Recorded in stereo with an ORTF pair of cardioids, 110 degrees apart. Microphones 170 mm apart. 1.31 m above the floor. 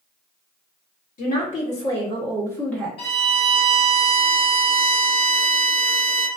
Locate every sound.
1.2 s a woman speaking: 55° left, 1.2 m; by 2.9 s straight ahead, 0.8 m
3.0 s a violin: 35° left, 0.9 m